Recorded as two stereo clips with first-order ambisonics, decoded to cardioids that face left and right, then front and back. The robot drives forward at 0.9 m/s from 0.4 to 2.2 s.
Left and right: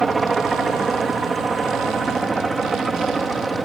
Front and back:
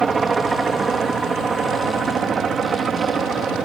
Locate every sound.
0.0 s a helicopter: 145° right; by 3.7 s 150° right